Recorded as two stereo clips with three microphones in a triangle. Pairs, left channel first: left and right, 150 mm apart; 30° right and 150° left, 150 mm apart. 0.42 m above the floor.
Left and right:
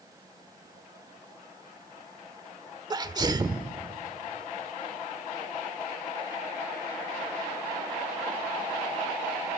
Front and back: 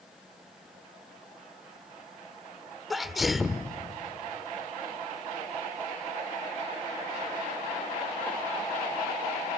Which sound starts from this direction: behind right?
A sneeze, at 2.9 s.